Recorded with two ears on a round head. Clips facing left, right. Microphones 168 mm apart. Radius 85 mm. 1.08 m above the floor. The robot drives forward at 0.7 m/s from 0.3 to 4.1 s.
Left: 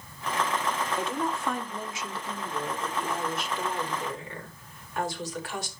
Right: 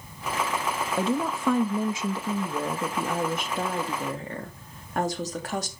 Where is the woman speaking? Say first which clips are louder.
Right 4 dB; 65° right (ahead or behind), 1.5 m; by 5.7 s 40° right (ahead or behind), 2 m.